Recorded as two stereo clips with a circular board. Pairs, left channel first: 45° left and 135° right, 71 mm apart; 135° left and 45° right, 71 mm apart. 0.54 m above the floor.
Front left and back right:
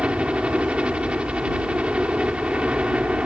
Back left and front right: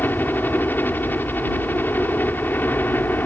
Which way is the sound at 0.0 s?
165° left.